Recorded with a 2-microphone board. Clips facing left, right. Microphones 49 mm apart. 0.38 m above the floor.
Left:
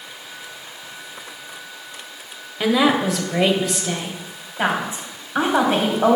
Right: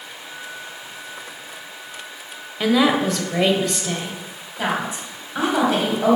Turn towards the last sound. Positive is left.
turn(degrees=30)  # may be behind; listen again after turning